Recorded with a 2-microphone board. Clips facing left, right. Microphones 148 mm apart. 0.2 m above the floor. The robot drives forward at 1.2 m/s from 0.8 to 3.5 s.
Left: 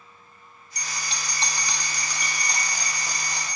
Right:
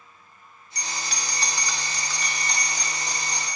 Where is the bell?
25° left (ahead or behind), 0.8 m; by 3.6 s 5° left (ahead or behind), 3 m.